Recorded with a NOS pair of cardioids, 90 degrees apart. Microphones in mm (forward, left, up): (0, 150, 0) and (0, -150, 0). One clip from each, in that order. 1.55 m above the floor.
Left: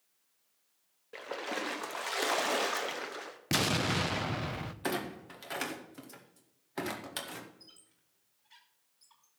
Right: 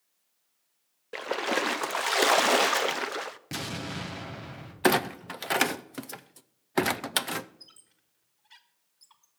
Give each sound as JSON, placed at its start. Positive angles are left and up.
{"t": 1.1, "sound": "a splash", "azimuth_deg": -40, "distance_m": 0.6}
{"t": 3.5, "sound": "an explosion", "azimuth_deg": 40, "distance_m": 0.9}
{"t": 4.8, "sound": "a clunk", "azimuth_deg": -60, "distance_m": 0.6}
{"t": 7.6, "sound": "a squeak", "azimuth_deg": -35, "distance_m": 1.5}